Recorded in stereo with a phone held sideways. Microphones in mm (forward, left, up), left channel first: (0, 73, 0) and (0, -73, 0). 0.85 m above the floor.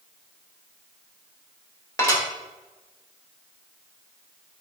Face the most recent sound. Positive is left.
turn(degrees=25)  # may be behind; listen again after turning